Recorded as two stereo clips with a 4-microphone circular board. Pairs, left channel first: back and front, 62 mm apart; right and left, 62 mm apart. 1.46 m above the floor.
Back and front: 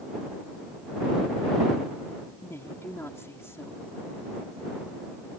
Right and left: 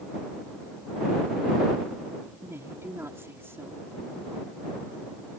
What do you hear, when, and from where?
2.4 s a woman speaking: 135° left